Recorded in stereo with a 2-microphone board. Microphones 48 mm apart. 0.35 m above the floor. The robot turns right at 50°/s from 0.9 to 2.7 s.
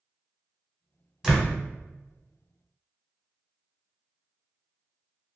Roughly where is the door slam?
Centre.